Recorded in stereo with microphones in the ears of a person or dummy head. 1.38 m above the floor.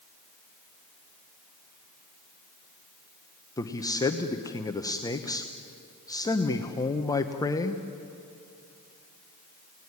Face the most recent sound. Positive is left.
turn(degrees=20)  # may be behind; listen again after turning